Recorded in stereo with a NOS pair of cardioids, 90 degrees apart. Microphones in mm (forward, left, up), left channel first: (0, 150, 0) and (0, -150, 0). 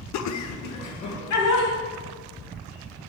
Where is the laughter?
65° left, 0.6 m; by 1.7 s 75° left, 2.5 m.